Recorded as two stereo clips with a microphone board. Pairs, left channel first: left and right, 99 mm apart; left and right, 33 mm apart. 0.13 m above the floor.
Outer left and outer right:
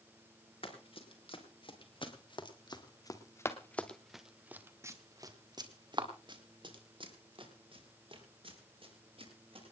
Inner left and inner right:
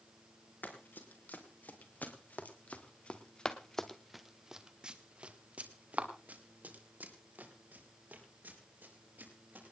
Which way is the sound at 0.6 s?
70° left (ahead or behind).